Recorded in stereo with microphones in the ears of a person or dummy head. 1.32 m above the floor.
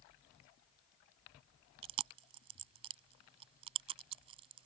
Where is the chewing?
35° right (ahead or behind).